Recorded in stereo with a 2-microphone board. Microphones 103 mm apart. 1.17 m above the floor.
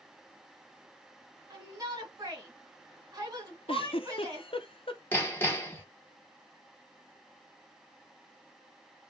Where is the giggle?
60° left (ahead or behind), 0.5 m.